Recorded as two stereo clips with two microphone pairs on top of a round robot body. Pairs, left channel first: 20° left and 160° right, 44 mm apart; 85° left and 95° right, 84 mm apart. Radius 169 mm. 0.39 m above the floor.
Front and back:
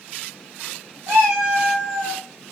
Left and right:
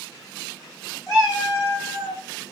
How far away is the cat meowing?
About 1.6 m.